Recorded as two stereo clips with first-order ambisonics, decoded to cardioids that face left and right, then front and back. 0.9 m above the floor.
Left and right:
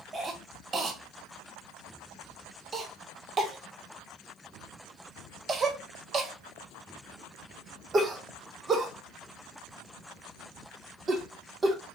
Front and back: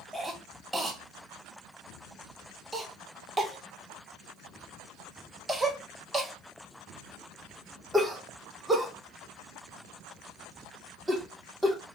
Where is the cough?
115° right, 0.6 m.